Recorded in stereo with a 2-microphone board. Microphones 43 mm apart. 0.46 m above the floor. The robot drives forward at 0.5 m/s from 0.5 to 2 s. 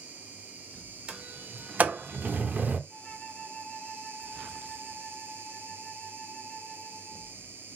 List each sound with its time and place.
0.0 s an insect: 40° right (ahead or behind), 1.2 m; by 7.8 s 60° right (ahead or behind), 0.9 m
1.1 s a sliding door: 30° right (ahead or behind), 0.7 m; by 2.8 s 40° right (ahead or behind), 0.5 m
2.9 s a flute: 20° left (ahead or behind), 1.6 m